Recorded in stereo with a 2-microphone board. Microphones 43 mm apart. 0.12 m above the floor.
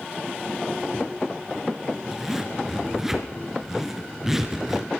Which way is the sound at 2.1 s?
10° right (ahead or behind).